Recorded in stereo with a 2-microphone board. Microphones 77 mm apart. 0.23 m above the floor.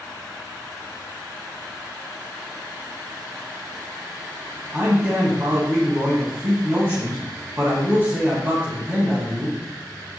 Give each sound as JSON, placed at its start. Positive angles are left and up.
{"t": 4.7, "sound": "a man speaking", "side_deg": -25, "distance_m": 1.5}